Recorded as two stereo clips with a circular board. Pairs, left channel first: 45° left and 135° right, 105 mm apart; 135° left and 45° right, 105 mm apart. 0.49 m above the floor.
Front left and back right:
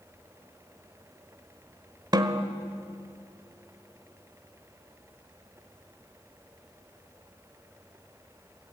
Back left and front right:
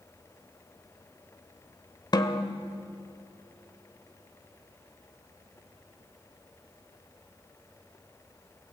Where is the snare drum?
Straight behind, 1.2 m.